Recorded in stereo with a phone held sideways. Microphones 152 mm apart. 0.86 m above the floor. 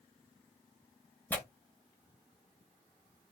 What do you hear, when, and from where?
1.3 s tearing paper: 15° left (ahead or behind), 0.9 m